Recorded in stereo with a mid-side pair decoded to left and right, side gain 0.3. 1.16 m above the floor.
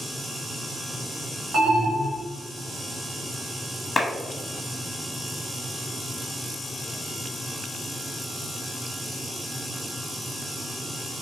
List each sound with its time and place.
1.5 s an alarm: 60° right, 1.9 m
4.0 s a clap: 55° left, 1.1 m